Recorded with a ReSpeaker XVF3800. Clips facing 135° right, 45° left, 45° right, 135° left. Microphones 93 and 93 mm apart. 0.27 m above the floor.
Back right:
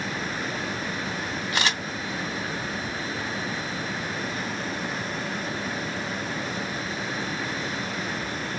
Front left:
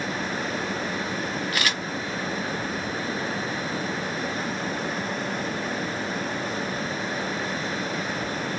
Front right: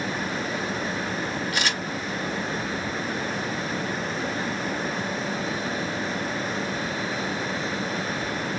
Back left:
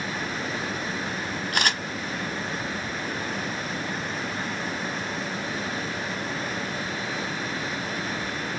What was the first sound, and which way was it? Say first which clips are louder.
A camera shutter: back right 4 dB, back left 5 dB; 165° left.